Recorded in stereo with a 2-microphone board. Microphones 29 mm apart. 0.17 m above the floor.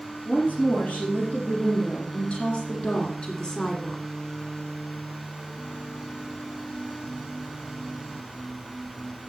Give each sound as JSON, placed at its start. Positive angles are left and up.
{"t": 0.2, "sound": "a woman speaking", "side_deg": 55, "distance_m": 5.5}